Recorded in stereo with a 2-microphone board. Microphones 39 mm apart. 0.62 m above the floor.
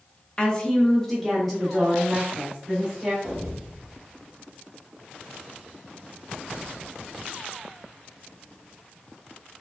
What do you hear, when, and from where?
0.4 s a woman speaking: 15° left (ahead or behind), 0.7 m; by 3.1 s 15° right (ahead or behind), 1.8 m
3.2 s an explosion: 10° right (ahead or behind), 1.5 m